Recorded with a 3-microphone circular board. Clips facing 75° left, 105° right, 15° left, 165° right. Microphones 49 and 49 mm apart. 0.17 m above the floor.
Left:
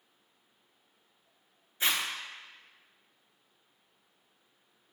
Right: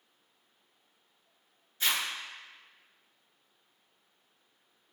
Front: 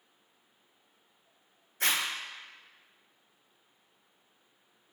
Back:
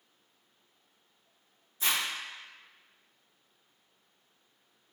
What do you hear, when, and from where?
1.8 s a zipper: 5° left, 1.1 m